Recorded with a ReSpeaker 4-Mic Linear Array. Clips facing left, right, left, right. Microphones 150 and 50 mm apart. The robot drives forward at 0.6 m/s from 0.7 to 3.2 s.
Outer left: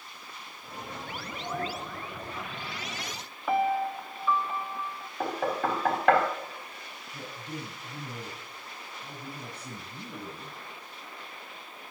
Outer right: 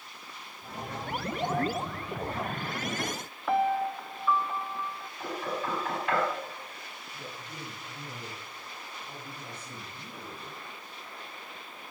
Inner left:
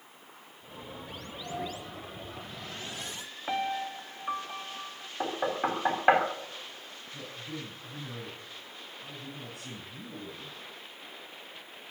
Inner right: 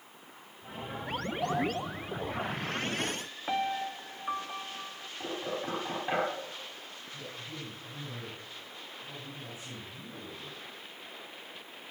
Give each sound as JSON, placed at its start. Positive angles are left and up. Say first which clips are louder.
{"t": 1.4, "sound": "a sliding door", "louder": "outer right 4 dB, inner right 6 dB", "side_deg": -85, "distance_m": 3.5}
{"t": 3.5, "sound": "a piano", "louder": "even, even", "side_deg": 5, "distance_m": 0.5}
{"t": 5.2, "sound": "knocking", "louder": "outer left 5 dB, inner left 6 dB", "side_deg": 80, "distance_m": 4.0}
{"t": 7.1, "sound": "a man speaking", "louder": "outer left 5 dB, inner left 3 dB", "side_deg": 75, "distance_m": 7.5}